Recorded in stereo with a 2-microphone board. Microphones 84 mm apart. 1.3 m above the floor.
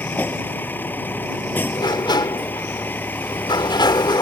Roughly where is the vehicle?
Left.